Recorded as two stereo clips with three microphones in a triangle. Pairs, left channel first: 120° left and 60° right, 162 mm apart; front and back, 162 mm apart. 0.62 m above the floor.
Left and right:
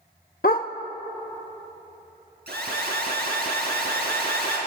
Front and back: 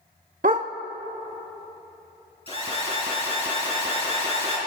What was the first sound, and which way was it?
A dog barking, 150° left.